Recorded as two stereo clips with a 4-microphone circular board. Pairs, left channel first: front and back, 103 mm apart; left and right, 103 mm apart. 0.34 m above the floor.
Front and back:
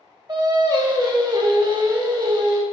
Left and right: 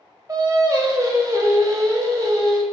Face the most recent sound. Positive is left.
turn(degrees=-140)